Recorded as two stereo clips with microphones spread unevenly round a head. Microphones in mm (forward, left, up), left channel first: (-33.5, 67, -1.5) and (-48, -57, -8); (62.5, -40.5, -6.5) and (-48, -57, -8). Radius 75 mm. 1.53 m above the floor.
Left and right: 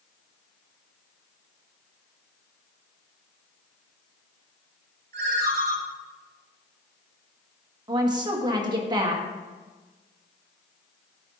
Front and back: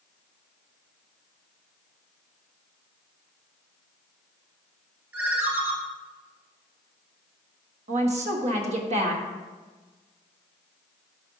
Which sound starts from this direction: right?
A ringtone, at 5.1 s.